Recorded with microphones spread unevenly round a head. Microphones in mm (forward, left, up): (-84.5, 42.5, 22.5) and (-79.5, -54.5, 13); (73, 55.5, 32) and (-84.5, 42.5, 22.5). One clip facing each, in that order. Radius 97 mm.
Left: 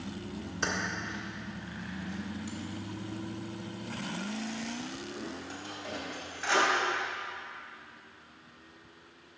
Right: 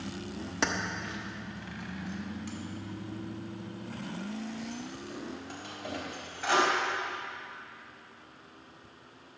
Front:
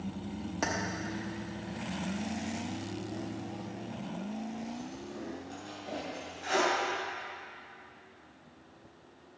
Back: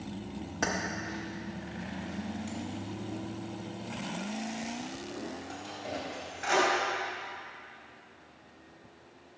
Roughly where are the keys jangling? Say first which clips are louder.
Right 2 dB, back 1 dB; right.